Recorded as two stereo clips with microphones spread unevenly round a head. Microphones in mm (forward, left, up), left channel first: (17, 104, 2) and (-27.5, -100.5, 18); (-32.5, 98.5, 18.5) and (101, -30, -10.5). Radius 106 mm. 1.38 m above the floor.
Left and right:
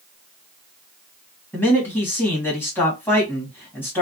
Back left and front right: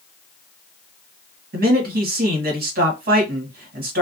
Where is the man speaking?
5° right, 1.5 m.